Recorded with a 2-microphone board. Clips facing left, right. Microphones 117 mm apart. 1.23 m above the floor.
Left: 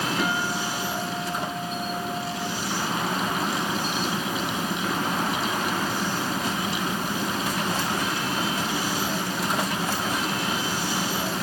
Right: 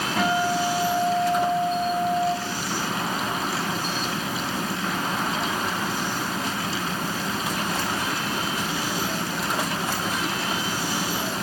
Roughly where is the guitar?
Right.